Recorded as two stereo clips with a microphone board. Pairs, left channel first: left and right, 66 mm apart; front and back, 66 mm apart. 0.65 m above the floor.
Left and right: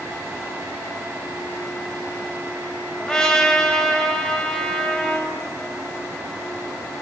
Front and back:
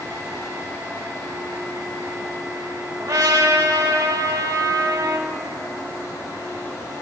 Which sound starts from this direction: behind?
A trumpet, at 3.0 s.